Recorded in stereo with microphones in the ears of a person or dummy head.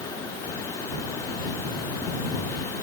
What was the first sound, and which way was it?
Only background noise.